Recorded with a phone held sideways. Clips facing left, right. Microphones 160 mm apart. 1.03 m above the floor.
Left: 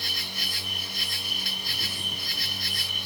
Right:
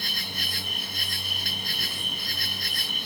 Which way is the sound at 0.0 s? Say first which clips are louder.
Right 2 dB; 55° right (ahead or behind).